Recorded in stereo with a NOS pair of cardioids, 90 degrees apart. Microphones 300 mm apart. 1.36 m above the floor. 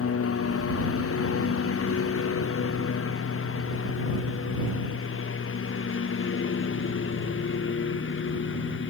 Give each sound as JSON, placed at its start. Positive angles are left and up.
{"t": 0.0, "sound": "a lawn mower", "azimuth_deg": 50}